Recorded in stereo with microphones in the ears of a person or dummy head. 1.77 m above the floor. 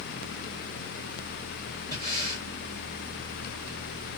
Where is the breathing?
20° right (ahead or behind), 7.5 m.